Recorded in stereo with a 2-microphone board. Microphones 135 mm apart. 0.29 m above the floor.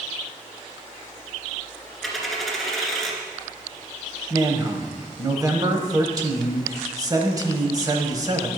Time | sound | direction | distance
2.0 | a dropped coin | centre (ahead or behind) | 1.7 m
4.3 | a man speaking | 30° right (ahead or behind) | 1.2 m